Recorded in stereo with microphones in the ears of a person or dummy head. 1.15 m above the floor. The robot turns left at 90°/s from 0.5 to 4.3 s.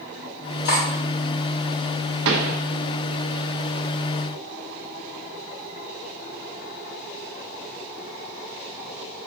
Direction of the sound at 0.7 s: 55° left (ahead or behind).